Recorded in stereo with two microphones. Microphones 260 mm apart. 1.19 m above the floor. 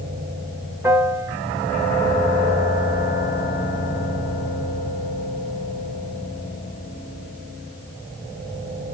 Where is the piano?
10° right (ahead or behind), 1.1 m.